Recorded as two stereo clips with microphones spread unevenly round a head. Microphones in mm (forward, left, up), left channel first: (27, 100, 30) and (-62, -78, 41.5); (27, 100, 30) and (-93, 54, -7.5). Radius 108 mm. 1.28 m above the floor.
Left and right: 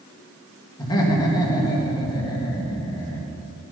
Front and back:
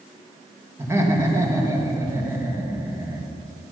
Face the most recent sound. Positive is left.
turn(degrees=135)